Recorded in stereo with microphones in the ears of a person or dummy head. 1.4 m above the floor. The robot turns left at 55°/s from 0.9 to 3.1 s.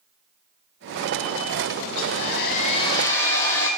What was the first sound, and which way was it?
A hair dryer, 80° left.